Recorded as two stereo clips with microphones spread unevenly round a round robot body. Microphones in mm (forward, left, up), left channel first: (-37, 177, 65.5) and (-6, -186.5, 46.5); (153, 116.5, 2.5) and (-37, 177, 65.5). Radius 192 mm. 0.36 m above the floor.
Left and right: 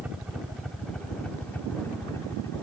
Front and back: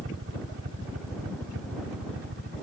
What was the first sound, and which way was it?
A helicopter, 170° right.